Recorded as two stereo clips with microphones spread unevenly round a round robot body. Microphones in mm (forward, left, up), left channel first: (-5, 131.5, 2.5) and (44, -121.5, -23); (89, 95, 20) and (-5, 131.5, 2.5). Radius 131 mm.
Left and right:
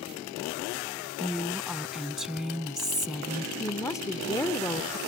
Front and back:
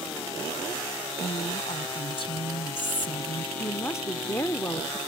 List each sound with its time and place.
1.2 s a woman speaking: 10° left
3.6 s a woman speaking: 25° left